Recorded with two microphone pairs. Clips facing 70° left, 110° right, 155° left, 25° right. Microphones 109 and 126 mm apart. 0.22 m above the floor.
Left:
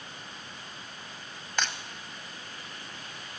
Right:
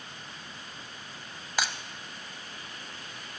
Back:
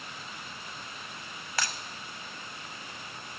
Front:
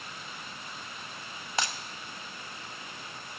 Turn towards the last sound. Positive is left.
turn(degrees=-35)